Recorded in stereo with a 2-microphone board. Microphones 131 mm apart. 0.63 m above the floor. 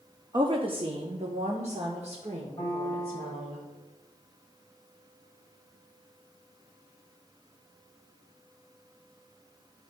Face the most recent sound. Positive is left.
turn(degrees=35)  # may be behind; listen again after turning